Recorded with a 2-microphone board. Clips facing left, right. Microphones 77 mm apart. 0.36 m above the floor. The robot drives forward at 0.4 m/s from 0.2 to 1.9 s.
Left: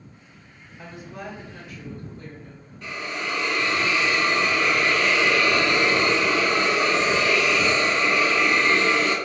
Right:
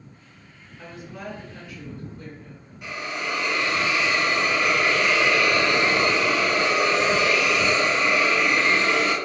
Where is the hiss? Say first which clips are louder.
Even; 15° right (ahead or behind), 1.3 m.